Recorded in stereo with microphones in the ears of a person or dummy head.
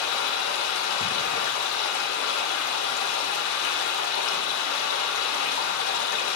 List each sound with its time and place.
0.0 s running water: 75° left (ahead or behind), 2 m